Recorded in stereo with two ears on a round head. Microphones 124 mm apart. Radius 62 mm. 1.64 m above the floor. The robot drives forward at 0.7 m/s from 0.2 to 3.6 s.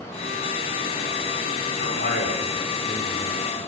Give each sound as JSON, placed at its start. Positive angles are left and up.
{"t": 1.8, "sound": "a man speaking", "side_deg": 70, "distance_m": 6.0}